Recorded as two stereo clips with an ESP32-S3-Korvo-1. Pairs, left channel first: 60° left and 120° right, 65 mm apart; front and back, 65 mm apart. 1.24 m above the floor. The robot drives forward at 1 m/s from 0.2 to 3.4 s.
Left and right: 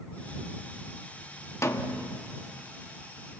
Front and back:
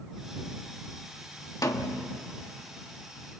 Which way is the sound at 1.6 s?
20° left.